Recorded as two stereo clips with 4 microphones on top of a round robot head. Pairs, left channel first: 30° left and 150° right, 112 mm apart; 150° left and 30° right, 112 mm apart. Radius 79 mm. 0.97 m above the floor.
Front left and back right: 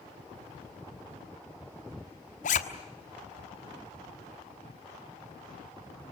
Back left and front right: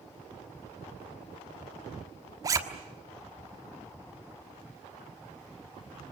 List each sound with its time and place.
2.4 s a zipper: 30° left, 1.4 m